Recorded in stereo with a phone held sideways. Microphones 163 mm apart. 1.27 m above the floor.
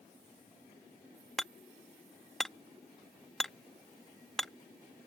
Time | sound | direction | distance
1.4 | hammering | centre (ahead or behind) | ?